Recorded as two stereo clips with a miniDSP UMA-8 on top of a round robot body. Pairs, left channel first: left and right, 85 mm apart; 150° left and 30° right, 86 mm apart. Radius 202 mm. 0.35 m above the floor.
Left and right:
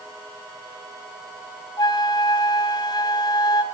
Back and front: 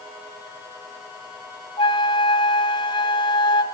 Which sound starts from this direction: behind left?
A flute, at 1.8 s.